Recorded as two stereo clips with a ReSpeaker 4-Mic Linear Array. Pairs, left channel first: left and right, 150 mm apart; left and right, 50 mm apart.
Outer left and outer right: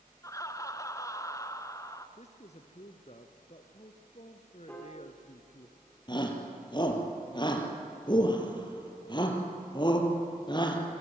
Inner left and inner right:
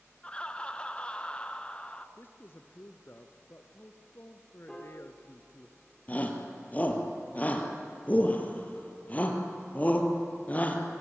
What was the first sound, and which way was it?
Laughter, 20° left (ahead or behind).